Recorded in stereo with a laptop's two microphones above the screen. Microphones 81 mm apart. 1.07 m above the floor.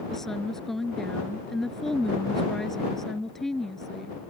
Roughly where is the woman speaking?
Centre.